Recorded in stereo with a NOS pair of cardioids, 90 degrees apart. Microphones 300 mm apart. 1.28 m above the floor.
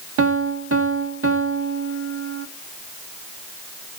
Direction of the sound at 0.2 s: 50° right.